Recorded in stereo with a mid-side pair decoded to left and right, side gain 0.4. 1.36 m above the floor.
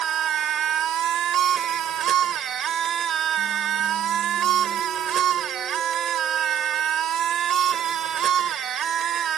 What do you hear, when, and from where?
0.0 s a machine running: 65° right